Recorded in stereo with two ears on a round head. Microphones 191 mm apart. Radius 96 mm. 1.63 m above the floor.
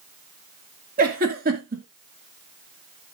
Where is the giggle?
40° right (ahead or behind), 2 m.